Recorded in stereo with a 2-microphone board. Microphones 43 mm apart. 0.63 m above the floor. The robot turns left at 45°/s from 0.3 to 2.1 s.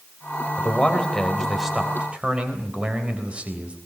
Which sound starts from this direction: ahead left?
A man speaking, at 0.6 s.